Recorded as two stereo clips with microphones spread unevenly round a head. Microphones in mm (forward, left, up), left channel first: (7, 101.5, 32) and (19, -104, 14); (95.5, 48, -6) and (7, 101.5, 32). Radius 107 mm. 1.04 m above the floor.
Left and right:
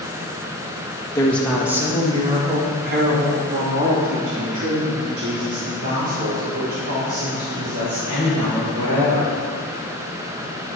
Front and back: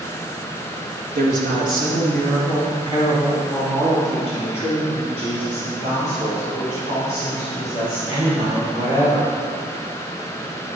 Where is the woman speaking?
175° left, 1.4 m; by 9.3 s 95° right, 6 m.